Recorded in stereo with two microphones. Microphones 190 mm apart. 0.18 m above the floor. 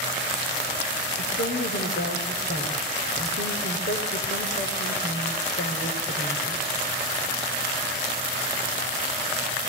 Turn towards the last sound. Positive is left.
turn(degrees=60)  # may be behind; listen again after turning